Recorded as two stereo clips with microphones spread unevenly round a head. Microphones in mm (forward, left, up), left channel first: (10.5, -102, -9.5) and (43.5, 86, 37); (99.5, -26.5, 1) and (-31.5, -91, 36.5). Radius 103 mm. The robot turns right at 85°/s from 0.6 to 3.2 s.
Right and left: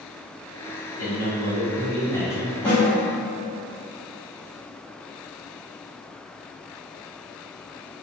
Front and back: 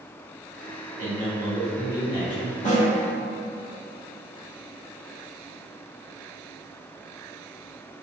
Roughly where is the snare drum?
Ahead.